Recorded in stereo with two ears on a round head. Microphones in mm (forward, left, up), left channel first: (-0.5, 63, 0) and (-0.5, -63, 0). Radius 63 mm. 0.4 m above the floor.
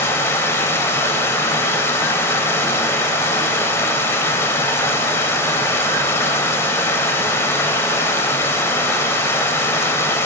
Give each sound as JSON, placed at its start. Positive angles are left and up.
{"t": 0.0, "sound": "running water", "side_deg": 20, "distance_m": 0.9}